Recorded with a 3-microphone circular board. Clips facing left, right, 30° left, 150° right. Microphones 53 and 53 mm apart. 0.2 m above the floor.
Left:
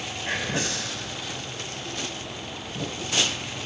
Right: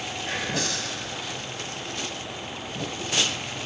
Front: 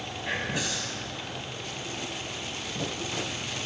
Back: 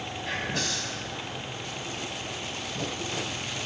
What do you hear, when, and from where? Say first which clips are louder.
0.2 s whispering: left 1 dB, front 1 dB; 90° left, 1.1 m